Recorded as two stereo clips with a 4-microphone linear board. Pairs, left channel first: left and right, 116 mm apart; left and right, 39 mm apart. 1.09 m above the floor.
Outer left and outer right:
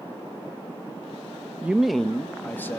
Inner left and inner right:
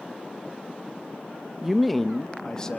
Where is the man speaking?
15° right (ahead or behind), 0.7 m; by 2.8 s 20° left (ahead or behind), 1.5 m.